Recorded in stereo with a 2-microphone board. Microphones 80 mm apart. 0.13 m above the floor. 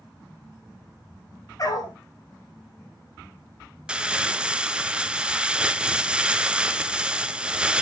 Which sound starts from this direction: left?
A dog barking, at 1.6 s.